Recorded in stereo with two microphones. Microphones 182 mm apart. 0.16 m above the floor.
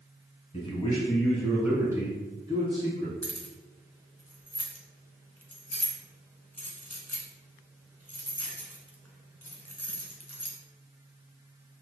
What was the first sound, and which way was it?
A man speaking, 30° left (ahead or behind).